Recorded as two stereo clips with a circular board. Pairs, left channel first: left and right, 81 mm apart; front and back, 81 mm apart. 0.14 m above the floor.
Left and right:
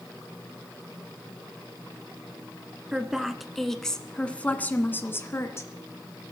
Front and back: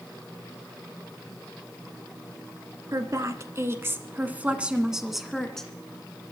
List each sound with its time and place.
2.9 s a woman speaking: 170° right, 1.7 m; by 5.7 s 75° left, 1.5 m